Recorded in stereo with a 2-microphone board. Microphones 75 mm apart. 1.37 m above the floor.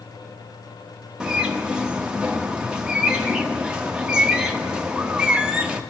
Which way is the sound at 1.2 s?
10° right (ahead or behind).